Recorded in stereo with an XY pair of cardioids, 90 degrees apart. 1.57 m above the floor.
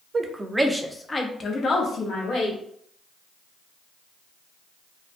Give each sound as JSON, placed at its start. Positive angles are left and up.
{"t": 0.1, "sound": "a woman speaking", "azimuth_deg": -30, "distance_m": 0.6}